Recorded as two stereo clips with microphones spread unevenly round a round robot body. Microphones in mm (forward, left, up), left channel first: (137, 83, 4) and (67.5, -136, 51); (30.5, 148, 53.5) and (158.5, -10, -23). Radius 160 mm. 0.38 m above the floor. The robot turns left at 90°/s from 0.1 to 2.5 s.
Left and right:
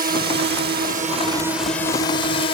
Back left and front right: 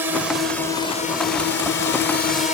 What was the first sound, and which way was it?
A drone, 75° right.